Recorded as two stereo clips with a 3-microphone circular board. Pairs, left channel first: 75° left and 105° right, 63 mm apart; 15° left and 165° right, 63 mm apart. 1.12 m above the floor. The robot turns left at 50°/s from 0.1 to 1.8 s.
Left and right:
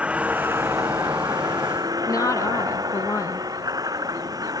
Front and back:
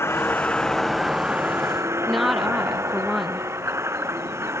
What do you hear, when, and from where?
0.0 s a vehicle: 35° right; by 4.6 s 120° right
2.1 s a woman speaking: 105° left